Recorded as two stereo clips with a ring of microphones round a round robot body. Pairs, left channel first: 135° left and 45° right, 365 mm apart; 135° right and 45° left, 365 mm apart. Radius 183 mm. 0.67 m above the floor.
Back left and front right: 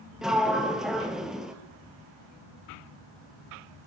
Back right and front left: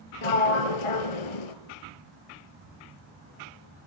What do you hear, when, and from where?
0.2 s a sliding door: 135° right, 2.5 m